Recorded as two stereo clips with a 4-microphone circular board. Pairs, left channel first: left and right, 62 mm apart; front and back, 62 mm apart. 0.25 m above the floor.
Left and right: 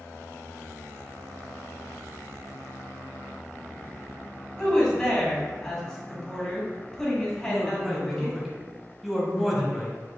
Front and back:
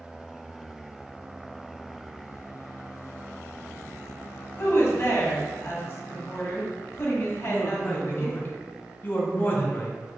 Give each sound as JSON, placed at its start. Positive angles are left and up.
{"t": 4.6, "sound": "a woman speaking", "azimuth_deg": 15, "distance_m": 1.5}
{"t": 7.5, "sound": "a man speaking", "azimuth_deg": -5, "distance_m": 1.1}